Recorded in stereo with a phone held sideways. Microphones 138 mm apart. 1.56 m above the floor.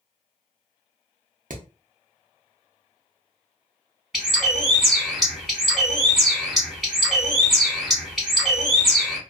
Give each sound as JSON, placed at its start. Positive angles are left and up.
{"t": 1.5, "sound": "hammering", "side_deg": -75, "distance_m": 0.6}
{"t": 4.1, "sound": "a bird", "side_deg": -5, "distance_m": 1.0}